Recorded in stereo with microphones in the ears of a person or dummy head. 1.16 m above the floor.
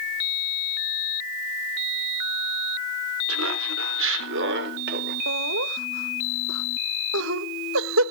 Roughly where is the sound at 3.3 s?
Right.